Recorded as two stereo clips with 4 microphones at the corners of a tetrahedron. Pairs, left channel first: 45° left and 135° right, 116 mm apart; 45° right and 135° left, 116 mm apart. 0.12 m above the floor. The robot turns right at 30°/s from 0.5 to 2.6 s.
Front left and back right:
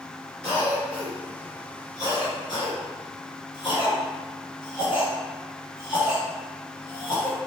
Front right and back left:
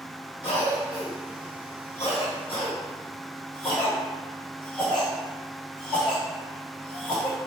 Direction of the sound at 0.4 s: 40° right.